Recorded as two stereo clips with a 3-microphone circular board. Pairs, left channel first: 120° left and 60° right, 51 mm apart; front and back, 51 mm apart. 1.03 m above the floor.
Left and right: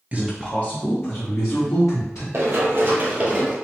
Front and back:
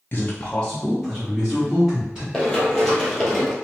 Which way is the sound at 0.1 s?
15° right.